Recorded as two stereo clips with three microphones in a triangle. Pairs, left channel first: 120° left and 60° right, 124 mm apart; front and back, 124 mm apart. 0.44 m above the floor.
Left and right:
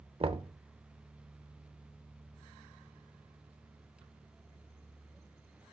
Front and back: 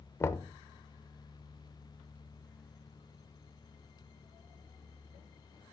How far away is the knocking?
About 0.8 m.